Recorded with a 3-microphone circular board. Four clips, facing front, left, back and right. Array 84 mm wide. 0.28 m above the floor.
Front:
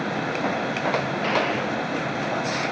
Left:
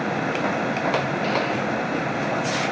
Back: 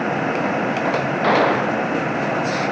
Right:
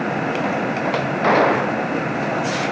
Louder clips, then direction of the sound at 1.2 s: Right 7 dB, back 7 dB; 120° right.